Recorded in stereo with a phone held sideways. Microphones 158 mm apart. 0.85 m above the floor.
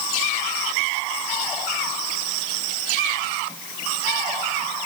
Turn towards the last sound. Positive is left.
No sound to turn to.